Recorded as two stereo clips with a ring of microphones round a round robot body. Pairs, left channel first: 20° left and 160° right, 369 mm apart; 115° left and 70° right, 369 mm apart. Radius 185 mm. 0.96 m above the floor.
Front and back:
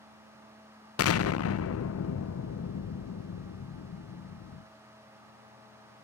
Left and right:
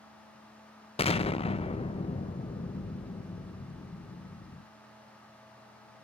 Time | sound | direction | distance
1.0 | an explosion | 45° left | 0.7 m